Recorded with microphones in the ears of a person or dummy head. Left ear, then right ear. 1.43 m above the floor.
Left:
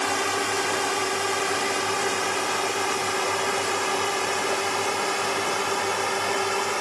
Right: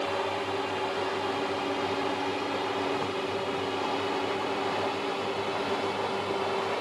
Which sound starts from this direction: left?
A drone, at 0.0 s.